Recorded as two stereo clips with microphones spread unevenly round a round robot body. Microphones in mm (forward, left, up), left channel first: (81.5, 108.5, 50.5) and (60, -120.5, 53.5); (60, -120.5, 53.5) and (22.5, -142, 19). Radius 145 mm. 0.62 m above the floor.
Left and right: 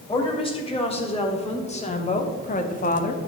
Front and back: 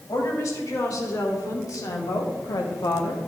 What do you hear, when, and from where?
0.1 s a woman speaking: 20° left, 3 m; by 3.2 s 70° left, 0.9 m